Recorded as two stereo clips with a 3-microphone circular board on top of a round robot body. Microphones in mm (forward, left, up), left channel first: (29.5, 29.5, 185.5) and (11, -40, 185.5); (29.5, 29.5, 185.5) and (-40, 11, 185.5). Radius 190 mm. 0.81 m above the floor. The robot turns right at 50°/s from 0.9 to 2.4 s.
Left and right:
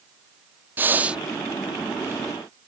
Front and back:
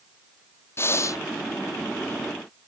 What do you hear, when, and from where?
0.8 s breathing: 40° right; by 1.2 s 25° right